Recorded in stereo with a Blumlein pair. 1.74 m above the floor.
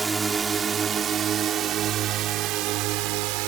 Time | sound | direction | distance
0.0 | a drone | 10° right | ?